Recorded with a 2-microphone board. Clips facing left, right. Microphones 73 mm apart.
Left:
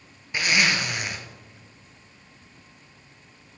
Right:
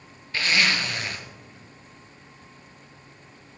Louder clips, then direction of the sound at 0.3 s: Left 1 dB; 15° left (ahead or behind).